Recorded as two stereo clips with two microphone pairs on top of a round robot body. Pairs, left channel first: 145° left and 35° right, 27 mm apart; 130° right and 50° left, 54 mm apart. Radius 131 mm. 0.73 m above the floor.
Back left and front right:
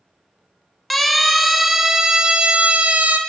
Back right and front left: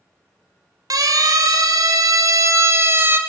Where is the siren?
60° left, 3 m; by 3.2 s 5° right, 2 m.